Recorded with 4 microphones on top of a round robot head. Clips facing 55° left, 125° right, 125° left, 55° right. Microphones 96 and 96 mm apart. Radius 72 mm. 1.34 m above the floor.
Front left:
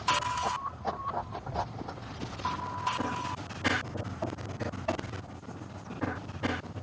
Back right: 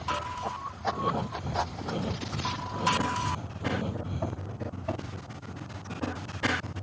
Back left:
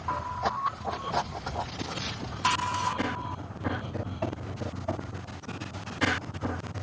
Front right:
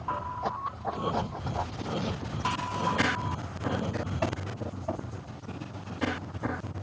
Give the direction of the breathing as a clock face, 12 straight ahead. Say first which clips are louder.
Back right 5 dB, even; 4 o'clock.